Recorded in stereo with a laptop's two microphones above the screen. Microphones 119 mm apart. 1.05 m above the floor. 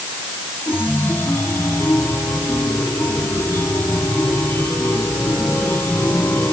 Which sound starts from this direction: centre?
A chime, at 0.7 s.